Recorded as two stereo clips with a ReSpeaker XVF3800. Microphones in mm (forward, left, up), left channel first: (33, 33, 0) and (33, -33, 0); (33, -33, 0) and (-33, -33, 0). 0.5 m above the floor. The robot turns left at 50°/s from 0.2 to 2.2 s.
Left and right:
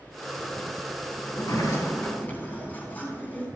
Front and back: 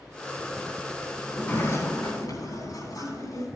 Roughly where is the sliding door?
Left.